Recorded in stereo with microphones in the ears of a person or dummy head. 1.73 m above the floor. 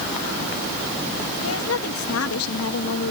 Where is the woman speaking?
80° left.